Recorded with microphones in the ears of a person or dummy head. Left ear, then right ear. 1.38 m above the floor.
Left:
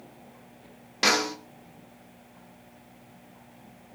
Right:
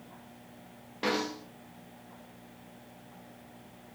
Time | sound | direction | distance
1.0 | a snare drum | 75° left (ahead or behind) | 2.5 m